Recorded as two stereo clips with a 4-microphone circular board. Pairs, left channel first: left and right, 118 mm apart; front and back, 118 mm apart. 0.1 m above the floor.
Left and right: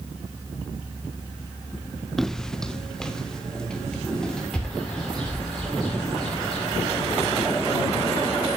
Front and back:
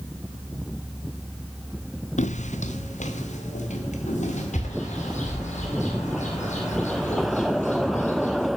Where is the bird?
5° left, 6.5 m.